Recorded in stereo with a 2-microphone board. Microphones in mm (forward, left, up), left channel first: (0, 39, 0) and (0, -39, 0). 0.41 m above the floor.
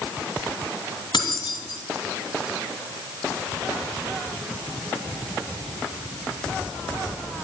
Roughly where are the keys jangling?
Left.